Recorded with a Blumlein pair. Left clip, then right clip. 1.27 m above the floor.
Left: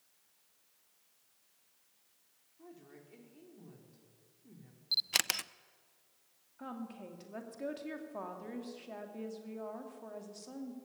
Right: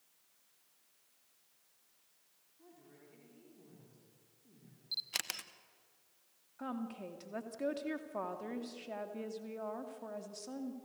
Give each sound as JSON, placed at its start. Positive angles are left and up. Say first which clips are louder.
{"t": 2.6, "sound": "a woman speaking", "louder": "left 5 dB", "azimuth_deg": 20, "distance_m": 4.5}
{"t": 4.9, "sound": "a camera shutter", "louder": "left 7 dB", "azimuth_deg": 20, "distance_m": 0.5}
{"t": 6.6, "sound": "a woman speaking", "louder": "right 3 dB", "azimuth_deg": -10, "distance_m": 2.5}